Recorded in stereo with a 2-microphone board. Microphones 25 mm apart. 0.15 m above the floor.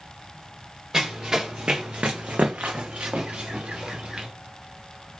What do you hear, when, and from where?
0.9 s running footsteps: 25° right (ahead or behind), 1.0 m; by 4.3 s 40° right (ahead or behind), 1.3 m